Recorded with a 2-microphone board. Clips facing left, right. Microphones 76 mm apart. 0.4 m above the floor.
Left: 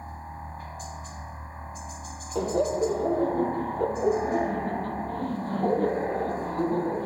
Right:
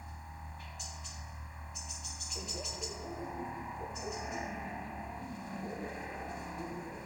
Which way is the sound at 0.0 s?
35° left (ahead or behind).